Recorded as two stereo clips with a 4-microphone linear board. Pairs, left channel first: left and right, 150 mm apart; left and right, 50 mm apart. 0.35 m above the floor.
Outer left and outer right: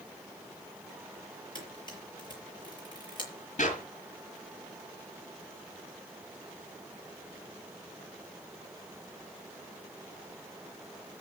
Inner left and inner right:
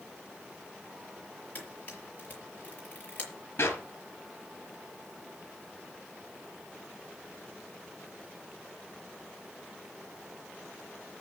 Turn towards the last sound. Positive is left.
turn(degrees=50)  # may be behind; listen again after turning